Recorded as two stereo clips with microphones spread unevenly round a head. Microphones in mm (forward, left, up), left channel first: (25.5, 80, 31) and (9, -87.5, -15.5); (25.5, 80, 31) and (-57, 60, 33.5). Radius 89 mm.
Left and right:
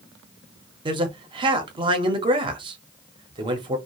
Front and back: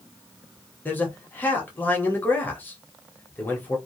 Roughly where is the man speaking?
Ahead right.